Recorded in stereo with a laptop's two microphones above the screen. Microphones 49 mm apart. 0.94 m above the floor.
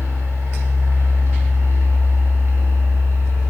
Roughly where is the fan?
Right.